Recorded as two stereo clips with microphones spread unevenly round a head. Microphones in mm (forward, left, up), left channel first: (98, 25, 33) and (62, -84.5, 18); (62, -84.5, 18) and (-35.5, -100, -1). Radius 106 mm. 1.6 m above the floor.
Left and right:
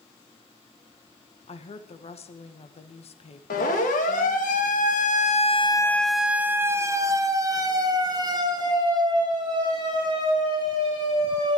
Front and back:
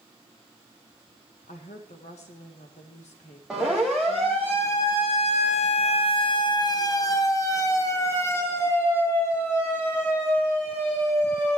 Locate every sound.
1.5 s a woman speaking: 40° left, 1.8 m
3.5 s a siren: 100° left, 2.5 m; by 11.6 s 60° right, 7 m